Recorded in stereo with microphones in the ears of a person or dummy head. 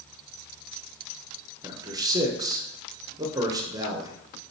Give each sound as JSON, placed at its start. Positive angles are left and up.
{"t": 1.6, "sound": "a man speaking", "side_deg": -15, "distance_m": 0.9}